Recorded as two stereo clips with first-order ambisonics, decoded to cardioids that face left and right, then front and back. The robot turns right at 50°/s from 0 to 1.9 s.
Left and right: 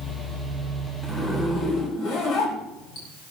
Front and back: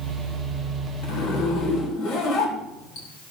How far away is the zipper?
About 4 m.